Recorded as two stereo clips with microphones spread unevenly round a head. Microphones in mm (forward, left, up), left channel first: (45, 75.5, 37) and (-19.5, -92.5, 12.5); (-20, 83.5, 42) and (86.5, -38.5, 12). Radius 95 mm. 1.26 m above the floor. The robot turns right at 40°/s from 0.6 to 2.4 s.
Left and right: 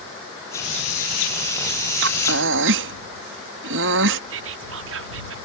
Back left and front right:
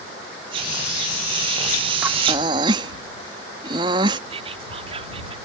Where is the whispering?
110° right.